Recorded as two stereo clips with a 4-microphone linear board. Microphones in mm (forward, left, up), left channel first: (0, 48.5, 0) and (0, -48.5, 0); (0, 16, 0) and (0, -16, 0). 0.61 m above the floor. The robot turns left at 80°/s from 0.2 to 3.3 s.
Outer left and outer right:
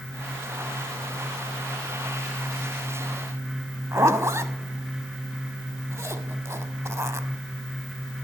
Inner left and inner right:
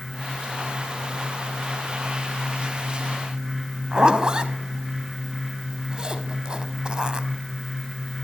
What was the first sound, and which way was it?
A zipper, 30° right (ahead or behind).